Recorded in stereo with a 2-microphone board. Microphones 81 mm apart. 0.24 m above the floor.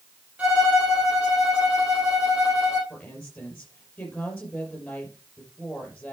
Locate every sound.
0.4 s a violin: 15° right (ahead or behind), 5.5 m
2.9 s a woman speaking: 15° left (ahead or behind), 4.5 m